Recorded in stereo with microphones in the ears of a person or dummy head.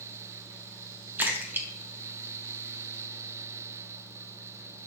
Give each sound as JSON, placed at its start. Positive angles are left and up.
{"t": 1.2, "sound": "a splash", "side_deg": -10, "distance_m": 1.2}